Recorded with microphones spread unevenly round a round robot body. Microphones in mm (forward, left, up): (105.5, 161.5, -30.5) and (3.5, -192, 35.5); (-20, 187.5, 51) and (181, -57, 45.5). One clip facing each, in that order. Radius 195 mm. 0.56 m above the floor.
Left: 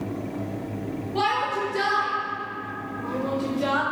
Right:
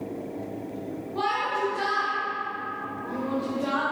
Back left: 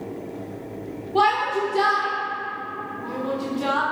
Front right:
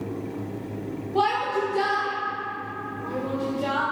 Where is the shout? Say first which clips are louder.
Left 1 dB, back left 2 dB; 75° left, 1.8 m.